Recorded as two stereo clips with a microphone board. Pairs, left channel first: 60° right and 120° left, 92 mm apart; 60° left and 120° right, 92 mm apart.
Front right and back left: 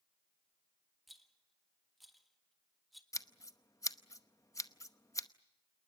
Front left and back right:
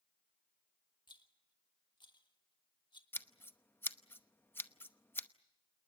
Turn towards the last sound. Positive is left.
turn(degrees=-5)